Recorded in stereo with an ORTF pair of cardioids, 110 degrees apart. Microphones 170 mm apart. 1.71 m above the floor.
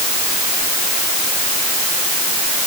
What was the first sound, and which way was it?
Only background noise.